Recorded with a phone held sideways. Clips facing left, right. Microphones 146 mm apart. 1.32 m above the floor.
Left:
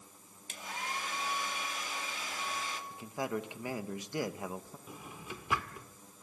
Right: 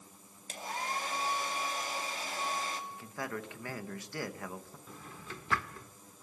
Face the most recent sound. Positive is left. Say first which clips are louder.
# left 2 dB
turn(degrees=15)  # may be behind; listen again after turning